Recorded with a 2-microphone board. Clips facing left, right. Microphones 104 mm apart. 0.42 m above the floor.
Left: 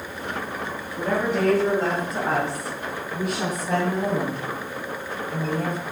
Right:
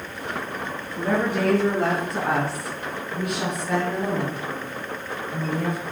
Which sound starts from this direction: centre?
A woman speaking, at 0.9 s.